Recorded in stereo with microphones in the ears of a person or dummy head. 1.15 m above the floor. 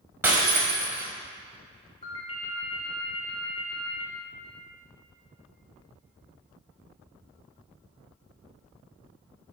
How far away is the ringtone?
About 1.2 m.